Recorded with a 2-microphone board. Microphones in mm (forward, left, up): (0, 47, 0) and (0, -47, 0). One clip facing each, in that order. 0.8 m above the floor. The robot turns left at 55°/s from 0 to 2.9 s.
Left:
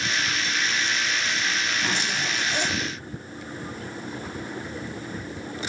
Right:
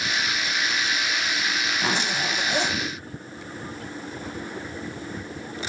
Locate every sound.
1.8 s a zipper: 70° right, 0.8 m; by 2.8 s 130° right, 0.8 m